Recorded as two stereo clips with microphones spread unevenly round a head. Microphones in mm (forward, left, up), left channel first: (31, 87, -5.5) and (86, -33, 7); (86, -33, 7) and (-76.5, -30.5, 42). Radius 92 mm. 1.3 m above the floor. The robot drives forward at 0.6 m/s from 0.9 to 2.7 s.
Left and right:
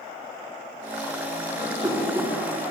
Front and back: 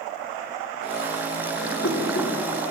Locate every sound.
1.6 s a whoosh: 10° left, 2 m